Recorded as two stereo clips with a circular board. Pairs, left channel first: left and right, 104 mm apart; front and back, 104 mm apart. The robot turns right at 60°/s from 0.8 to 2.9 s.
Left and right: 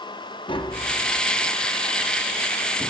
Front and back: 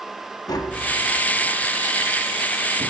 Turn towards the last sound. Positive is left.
turn(degrees=180)